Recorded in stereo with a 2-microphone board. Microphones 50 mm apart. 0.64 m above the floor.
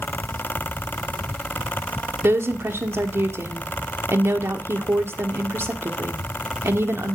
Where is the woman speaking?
60° right (ahead or behind), 1.4 m.